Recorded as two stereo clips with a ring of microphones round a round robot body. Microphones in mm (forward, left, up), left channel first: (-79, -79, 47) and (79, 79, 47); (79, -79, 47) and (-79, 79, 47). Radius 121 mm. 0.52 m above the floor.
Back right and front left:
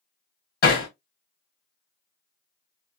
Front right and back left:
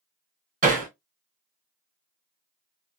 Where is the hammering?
175° right, 2.0 m.